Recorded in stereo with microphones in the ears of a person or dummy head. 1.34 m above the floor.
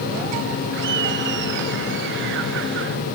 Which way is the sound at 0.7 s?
65° right (ahead or behind).